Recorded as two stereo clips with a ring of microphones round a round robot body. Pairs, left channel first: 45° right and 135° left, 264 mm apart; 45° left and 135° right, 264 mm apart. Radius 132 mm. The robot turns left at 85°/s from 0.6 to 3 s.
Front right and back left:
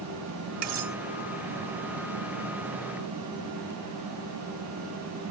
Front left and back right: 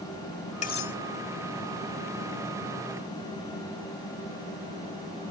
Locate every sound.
0.6 s cutlery clinking: 110° left; by 1.0 s 80° left